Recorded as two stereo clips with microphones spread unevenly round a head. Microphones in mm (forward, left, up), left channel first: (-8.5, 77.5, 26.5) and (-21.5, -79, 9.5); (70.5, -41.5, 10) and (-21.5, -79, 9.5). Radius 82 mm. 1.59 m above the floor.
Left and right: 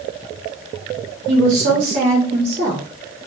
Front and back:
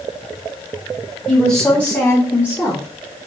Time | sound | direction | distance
1.3 | a woman speaking | 65° right | 1.0 m